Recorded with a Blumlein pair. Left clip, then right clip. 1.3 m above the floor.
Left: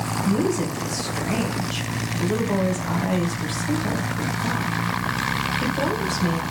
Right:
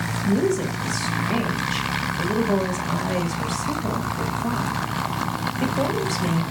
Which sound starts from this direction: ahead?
A woman speaking, at 0.2 s.